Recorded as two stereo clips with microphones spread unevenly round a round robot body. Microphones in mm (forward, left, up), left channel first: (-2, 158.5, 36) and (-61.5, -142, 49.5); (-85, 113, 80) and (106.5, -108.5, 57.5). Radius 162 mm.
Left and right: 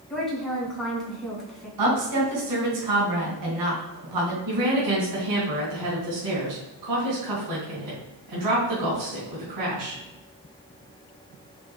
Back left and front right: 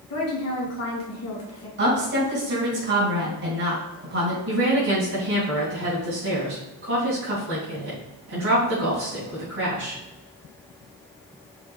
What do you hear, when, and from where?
0.1 s a woman speaking: 165° left, 3.5 m
1.8 s a woman speaking: 100° right, 4 m
4.5 s a woman speaking: 100° right, 3.5 m